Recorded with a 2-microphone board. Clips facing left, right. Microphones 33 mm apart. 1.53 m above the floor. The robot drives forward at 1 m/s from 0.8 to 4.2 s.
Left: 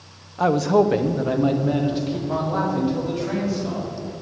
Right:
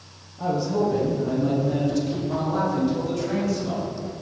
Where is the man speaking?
75° left (ahead or behind), 0.8 m; by 3.9 s 15° left (ahead or behind), 3.5 m.